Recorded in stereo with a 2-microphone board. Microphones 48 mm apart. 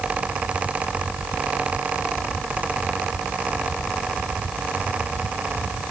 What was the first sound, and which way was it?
Only background noise.